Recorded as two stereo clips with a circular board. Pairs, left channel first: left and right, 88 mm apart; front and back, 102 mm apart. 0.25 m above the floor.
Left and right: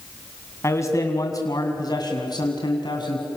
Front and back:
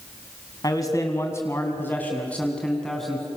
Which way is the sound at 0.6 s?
40° left.